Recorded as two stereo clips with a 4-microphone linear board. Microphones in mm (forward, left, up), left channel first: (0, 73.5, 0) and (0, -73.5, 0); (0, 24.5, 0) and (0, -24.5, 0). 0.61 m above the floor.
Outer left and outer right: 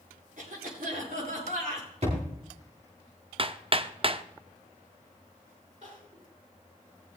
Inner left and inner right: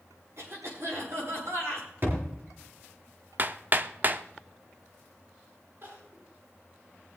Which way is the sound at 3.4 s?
40° right (ahead or behind).